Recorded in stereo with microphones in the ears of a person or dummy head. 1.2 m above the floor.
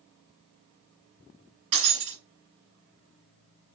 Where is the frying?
I don't hear frying.